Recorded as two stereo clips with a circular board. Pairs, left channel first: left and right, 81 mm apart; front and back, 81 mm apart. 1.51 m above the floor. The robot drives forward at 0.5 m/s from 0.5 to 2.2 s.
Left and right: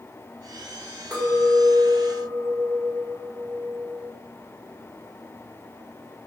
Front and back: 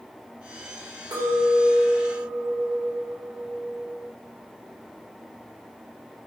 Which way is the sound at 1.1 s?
175° right.